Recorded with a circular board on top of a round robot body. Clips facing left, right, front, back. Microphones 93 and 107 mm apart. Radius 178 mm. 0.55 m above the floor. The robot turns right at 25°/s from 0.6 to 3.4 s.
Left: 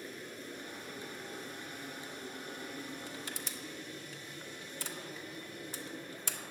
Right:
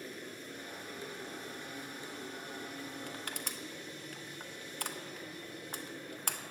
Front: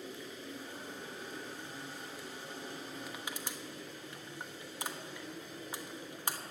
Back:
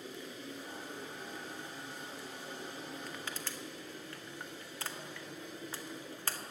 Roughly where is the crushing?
Right.